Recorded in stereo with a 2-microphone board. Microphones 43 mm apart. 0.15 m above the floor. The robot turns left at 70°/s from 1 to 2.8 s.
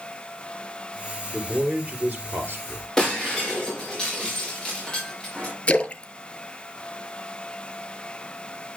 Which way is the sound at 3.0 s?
15° left (ahead or behind).